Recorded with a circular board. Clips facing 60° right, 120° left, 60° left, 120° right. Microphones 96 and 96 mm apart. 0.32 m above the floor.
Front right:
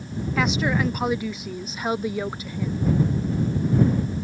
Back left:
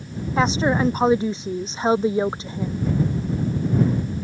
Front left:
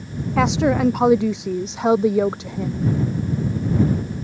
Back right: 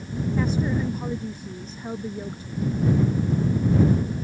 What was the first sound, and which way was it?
A woman speaking, 60° left.